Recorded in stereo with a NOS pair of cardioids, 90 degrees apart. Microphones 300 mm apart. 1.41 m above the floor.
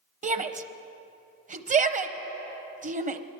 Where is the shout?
25° right, 0.8 m.